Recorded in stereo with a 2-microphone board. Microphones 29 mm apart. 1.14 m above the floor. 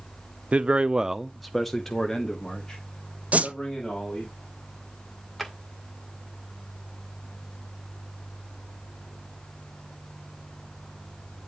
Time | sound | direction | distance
0.5 | a man speaking | 35° right (ahead or behind) | 0.6 m
3.3 | a whoosh | 50° right (ahead or behind) | 0.6 m
5.4 | a drawer | centre (ahead or behind) | 2.0 m